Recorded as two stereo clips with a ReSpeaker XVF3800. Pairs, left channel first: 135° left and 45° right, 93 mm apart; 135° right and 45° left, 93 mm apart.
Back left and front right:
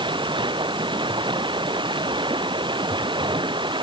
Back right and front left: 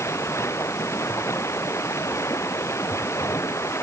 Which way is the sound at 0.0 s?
75° right.